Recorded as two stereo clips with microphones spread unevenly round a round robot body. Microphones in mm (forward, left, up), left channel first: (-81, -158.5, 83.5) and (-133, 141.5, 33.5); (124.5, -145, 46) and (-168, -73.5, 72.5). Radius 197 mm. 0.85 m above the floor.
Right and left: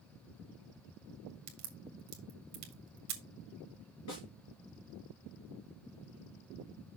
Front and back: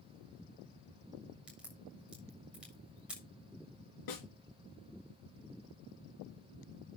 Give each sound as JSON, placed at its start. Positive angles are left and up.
{"t": 1.5, "sound": "a crack", "azimuth_deg": 75, "distance_m": 2.0}
{"t": 4.1, "sound": "a snare drum", "azimuth_deg": -30, "distance_m": 4.0}